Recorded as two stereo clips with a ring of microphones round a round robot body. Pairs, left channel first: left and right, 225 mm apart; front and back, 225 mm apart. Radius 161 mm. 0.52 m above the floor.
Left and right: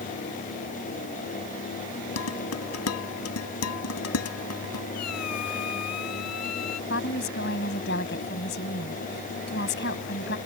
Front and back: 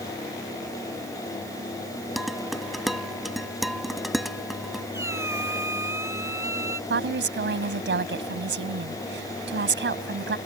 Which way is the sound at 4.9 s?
100° left.